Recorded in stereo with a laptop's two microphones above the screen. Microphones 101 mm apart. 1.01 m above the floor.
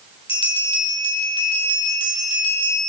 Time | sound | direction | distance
0.3 | a bell | 70° left (ahead or behind) | 4.5 m